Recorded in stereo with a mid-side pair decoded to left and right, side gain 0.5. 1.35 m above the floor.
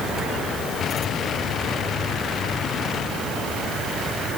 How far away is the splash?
No splash in this recording.